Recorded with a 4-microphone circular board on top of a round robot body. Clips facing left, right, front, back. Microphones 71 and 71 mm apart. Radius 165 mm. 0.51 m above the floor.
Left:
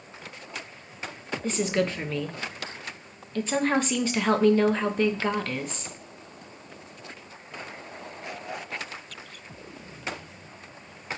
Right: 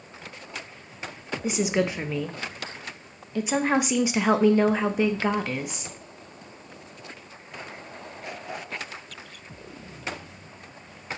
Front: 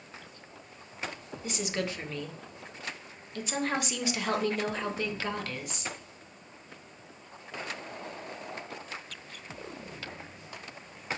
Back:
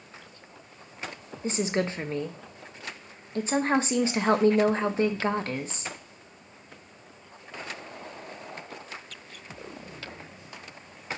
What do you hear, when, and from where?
1.4 s a woman speaking: 155° right, 0.8 m